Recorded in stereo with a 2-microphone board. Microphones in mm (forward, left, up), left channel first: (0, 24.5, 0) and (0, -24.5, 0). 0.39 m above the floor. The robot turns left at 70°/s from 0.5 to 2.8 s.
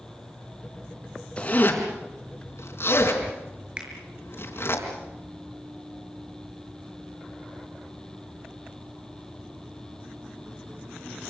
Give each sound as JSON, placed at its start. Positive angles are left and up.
{"t": 1.4, "sound": "a zipper", "side_deg": 15, "distance_m": 4.5}
{"t": 3.8, "sound": "a finger snap", "side_deg": -20, "distance_m": 6.0}